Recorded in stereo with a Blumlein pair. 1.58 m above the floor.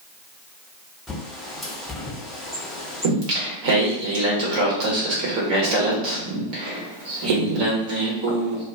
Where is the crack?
No crack in this recording.